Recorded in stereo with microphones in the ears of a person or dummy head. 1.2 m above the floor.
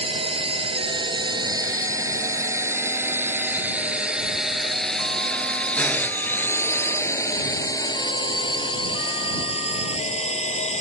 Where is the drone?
35° right (ahead or behind); by 10.8 s 35° left (ahead or behind).